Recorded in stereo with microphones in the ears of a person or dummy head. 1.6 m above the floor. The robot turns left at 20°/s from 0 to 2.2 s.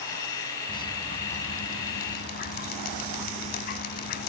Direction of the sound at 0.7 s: 25° left (ahead or behind).